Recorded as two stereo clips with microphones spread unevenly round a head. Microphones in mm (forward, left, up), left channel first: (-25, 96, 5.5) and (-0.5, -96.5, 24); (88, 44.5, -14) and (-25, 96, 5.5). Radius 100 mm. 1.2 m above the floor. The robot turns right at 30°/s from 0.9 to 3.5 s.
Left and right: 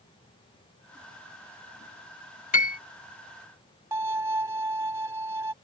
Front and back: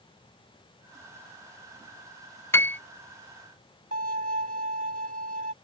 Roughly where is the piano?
Ahead left.